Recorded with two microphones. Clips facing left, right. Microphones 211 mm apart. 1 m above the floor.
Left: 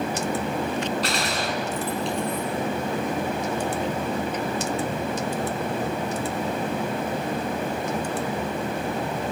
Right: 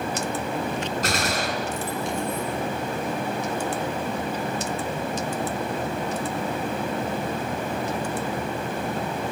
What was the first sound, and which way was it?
A gunshot, 50° right (ahead or behind).